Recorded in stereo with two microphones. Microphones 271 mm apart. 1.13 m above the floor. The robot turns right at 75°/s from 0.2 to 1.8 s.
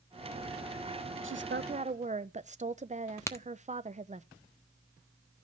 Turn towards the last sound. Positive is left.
turn(degrees=10)  # may be behind; listen again after turning